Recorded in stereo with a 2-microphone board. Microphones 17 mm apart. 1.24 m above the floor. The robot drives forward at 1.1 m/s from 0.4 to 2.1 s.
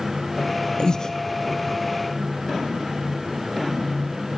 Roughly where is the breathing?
Left.